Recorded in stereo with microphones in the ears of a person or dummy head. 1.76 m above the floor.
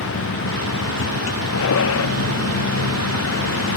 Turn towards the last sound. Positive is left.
turn(degrees=75)  # may be behind; listen again after turning